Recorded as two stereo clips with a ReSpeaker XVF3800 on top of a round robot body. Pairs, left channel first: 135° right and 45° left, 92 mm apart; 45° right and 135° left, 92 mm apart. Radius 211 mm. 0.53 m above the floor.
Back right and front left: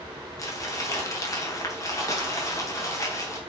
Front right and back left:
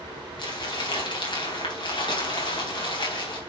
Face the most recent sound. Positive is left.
turn(degrees=-80)